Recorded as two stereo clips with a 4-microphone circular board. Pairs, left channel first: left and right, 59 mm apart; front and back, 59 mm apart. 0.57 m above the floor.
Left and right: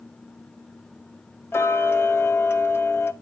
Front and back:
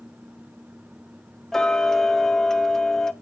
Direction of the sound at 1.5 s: 80° left.